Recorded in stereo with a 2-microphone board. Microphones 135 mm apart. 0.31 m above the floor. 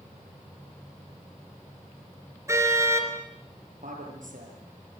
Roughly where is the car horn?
Right.